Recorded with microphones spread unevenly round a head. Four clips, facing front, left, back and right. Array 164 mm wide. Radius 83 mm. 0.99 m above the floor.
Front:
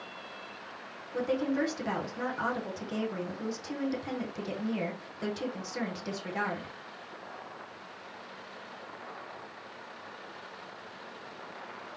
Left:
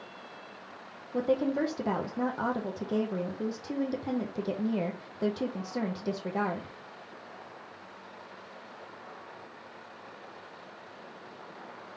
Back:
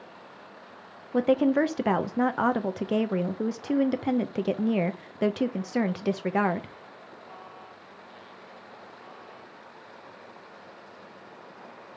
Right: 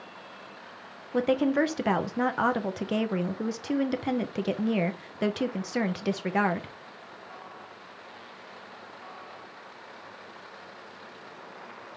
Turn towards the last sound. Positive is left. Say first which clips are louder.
# right 4 dB, back 8 dB
turn(degrees=-150)